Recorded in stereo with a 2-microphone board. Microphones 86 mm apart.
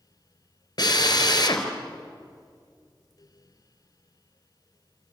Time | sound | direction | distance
0.8 | a drill | 50° left (ahead or behind) | 3 m